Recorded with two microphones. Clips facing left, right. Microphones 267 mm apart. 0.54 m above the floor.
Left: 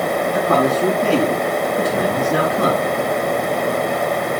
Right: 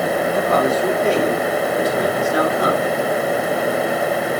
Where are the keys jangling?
I don't hear keys jangling.